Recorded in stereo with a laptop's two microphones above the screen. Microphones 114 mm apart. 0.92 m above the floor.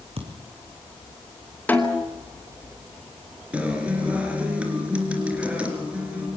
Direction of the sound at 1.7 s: 15° left (ahead or behind).